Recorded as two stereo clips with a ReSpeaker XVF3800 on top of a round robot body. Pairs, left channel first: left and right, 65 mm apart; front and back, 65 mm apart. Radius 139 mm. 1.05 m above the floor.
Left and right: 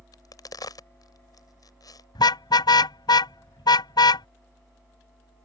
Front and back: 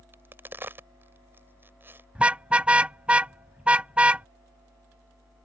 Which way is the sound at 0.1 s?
120° left.